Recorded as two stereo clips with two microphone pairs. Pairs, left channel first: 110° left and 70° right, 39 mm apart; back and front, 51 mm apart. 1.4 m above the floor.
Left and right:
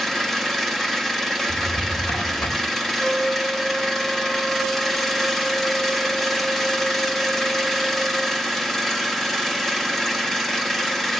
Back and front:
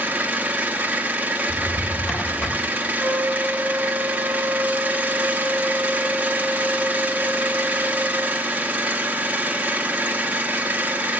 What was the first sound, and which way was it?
An engine running, 30° left.